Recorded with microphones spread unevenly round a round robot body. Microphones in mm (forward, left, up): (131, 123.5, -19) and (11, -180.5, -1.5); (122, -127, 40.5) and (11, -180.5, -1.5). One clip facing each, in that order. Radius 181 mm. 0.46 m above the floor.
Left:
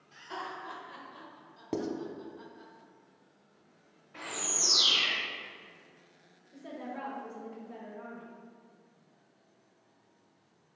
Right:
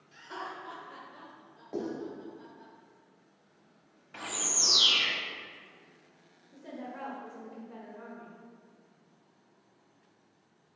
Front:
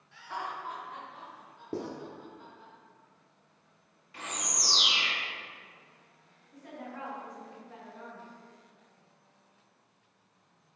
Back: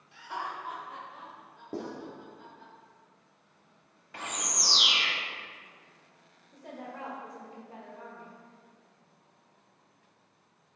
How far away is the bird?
About 1.6 m.